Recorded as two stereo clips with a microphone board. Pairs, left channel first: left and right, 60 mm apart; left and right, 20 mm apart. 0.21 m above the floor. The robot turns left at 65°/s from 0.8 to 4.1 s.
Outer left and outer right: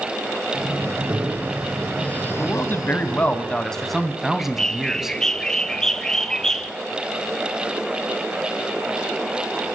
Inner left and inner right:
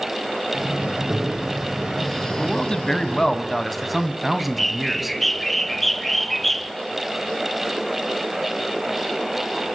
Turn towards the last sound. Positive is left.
turn(degrees=10)  # may be behind; listen again after turning